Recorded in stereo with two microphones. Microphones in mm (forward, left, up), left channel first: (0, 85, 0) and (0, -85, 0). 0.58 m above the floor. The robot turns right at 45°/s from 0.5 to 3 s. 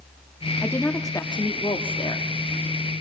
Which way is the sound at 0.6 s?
20° left.